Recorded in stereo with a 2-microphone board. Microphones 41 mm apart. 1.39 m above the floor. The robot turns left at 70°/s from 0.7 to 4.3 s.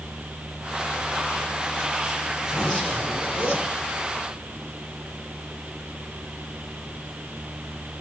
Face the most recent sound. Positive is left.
turn(degrees=50)